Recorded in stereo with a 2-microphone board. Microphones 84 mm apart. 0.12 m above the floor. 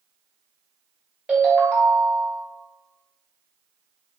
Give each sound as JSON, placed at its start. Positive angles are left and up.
{"t": 1.3, "sound": "a ringtone", "side_deg": -15, "distance_m": 1.0}